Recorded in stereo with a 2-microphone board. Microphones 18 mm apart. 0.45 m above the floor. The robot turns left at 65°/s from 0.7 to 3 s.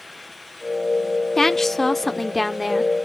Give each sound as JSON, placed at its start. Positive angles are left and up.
{"t": 1.4, "sound": "a woman speaking", "side_deg": 20, "distance_m": 0.9}